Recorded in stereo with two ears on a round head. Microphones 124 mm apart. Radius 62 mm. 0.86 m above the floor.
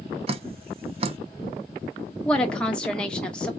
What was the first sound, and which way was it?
Dripping, 50° right (ahead or behind).